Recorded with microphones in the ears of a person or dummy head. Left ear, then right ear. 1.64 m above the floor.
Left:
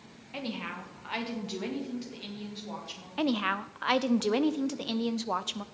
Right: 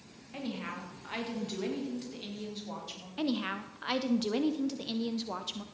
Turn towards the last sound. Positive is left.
turn(degrees=30)  # may be behind; listen again after turning